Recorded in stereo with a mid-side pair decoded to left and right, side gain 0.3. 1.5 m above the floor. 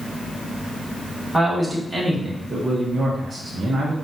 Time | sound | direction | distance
1.3 | a man speaking | 15° right | 2 m